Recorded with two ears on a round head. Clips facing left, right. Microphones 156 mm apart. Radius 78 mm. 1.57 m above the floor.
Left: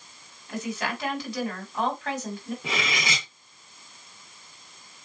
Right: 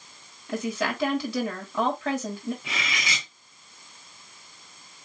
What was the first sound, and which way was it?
A woman speaking, 80° right.